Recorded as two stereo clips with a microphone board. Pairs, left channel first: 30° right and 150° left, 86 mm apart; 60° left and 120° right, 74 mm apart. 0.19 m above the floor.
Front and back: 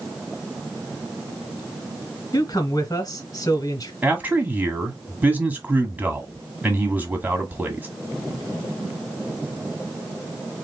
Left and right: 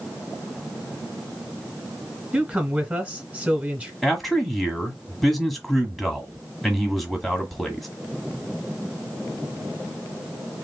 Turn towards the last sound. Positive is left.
turn(degrees=145)